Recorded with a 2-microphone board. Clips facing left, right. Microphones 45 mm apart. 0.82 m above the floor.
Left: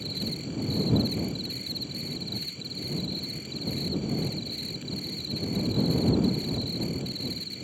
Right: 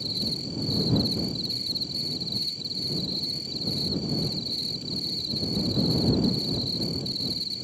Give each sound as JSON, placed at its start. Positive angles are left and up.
{"t": 0.0, "sound": "an insect", "side_deg": 35}